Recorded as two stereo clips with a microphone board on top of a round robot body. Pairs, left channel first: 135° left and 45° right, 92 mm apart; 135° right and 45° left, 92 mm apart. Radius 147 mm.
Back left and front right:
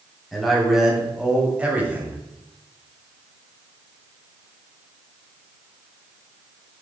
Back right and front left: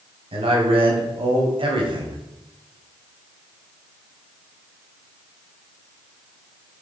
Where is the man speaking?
45° left, 3 m; by 2.2 s 25° left, 2 m.